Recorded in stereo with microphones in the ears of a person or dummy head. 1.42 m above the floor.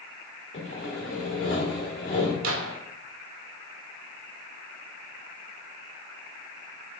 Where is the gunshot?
75° right (ahead or behind), 0.9 m.